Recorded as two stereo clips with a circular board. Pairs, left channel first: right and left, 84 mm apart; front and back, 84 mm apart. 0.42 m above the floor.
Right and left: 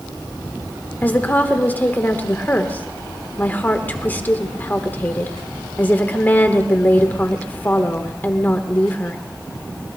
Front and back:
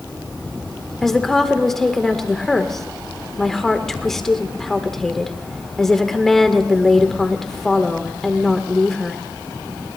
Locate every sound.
1.0 s a woman speaking: 80° right, 1.0 m